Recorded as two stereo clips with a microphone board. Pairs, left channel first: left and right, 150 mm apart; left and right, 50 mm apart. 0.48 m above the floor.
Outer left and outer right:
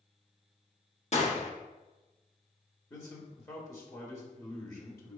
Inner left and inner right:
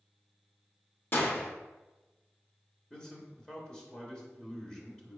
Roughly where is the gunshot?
Left.